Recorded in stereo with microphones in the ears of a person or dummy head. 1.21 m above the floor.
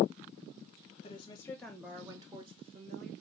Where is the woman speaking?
30° left (ahead or behind), 0.7 m; by 3.1 s 40° right (ahead or behind), 1.2 m.